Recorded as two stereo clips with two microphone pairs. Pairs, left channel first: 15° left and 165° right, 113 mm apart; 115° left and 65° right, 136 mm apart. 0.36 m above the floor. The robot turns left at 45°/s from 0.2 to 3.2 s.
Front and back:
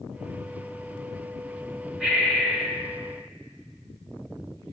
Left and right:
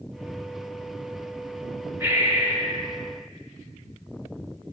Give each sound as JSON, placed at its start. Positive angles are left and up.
{"t": 2.0, "sound": "breathing", "azimuth_deg": -95, "distance_m": 1.1}